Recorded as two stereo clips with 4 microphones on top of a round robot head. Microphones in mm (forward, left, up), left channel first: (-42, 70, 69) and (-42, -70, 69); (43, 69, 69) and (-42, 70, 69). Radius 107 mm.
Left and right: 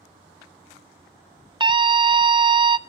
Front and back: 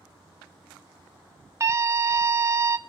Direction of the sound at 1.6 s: 135° right.